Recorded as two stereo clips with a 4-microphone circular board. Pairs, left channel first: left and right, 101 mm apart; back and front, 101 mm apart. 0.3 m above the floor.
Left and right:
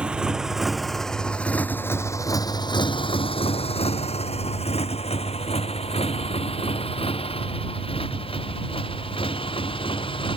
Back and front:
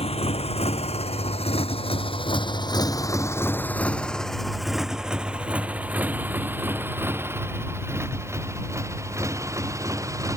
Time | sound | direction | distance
0.0 | a motorcycle | 170° right | ?